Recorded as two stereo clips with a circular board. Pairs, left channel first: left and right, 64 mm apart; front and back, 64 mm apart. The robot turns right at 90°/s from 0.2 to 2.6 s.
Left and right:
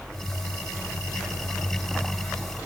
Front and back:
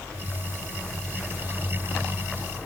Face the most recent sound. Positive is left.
No sound to turn to.